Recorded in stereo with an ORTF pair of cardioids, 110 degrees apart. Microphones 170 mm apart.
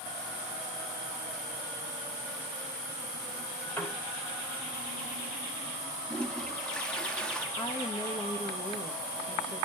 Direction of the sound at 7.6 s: 30° left.